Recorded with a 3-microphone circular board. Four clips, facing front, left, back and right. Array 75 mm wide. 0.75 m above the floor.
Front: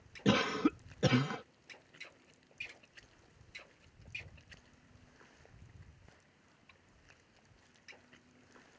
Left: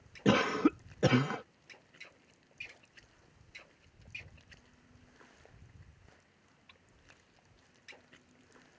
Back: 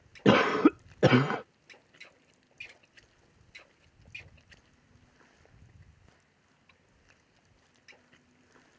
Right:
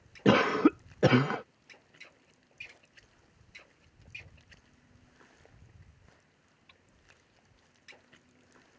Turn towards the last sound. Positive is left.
turn(degrees=-155)